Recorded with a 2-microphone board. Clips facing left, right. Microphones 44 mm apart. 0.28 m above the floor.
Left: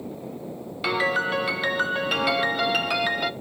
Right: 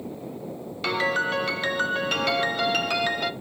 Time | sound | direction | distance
0.8 | a piano | 5° left (ahead or behind) | 0.6 m